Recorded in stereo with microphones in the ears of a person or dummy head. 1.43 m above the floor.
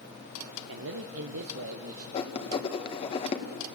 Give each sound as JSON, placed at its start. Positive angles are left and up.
{"t": 0.7, "sound": "a man speaking", "side_deg": -75, "distance_m": 0.9}
{"t": 2.1, "sound": "writing", "side_deg": 40, "distance_m": 1.6}